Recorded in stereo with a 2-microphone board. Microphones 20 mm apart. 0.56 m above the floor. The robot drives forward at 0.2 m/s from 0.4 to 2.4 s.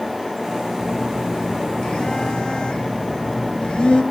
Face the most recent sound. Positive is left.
turn(degrees=70)  # may be behind; listen again after turning